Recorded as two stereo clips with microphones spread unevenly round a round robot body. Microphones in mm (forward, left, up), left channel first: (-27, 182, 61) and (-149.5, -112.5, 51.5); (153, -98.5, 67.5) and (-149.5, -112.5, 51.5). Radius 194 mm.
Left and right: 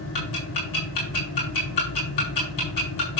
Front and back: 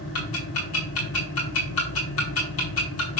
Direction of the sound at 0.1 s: 25° left.